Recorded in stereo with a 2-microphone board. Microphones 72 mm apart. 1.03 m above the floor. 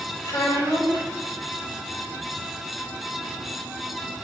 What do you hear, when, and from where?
0.2 s a child speaking: 85° left, 4 m